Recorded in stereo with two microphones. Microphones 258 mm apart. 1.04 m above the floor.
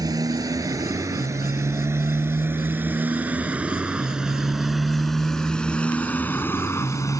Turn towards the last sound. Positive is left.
turn(degrees=15)  # may be behind; listen again after turning